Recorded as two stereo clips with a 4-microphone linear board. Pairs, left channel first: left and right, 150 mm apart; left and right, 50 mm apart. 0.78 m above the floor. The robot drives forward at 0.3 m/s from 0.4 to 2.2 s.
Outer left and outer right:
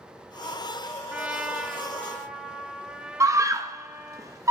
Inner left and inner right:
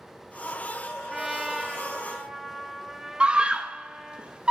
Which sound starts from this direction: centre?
A trumpet, at 1.1 s.